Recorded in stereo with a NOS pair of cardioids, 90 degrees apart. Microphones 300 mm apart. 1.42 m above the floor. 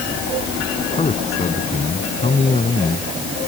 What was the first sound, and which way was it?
A man speaking, 20° left.